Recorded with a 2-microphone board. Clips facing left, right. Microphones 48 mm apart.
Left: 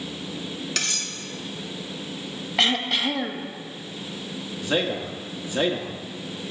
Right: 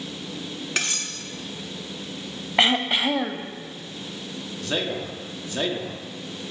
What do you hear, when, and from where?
0.8 s cutlery clinking: 25° right (ahead or behind), 0.9 m
2.6 s throat clearing: 25° right (ahead or behind), 0.5 m
4.6 s a man speaking: 10° left (ahead or behind), 1.0 m